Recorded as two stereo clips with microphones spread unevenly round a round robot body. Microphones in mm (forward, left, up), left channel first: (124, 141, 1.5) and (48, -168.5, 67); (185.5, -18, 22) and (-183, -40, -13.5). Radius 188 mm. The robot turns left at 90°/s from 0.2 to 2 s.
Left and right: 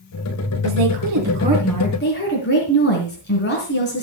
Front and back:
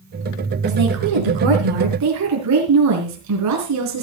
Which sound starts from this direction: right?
A woman speaking, at 0.6 s.